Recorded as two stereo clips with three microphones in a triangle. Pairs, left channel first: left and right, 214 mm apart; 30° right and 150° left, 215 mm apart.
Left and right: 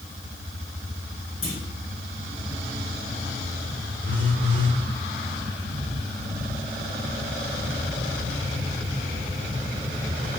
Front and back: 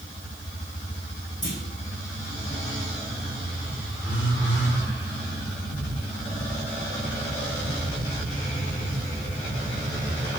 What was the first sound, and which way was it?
A clunk, 40° left.